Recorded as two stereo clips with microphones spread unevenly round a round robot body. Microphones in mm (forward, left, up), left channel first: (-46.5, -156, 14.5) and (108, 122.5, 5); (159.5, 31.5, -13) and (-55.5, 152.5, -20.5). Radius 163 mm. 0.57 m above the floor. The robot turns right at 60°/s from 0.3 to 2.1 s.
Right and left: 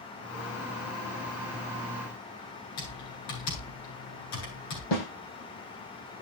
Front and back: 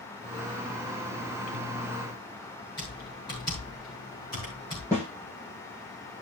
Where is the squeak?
I don't hear a squeak.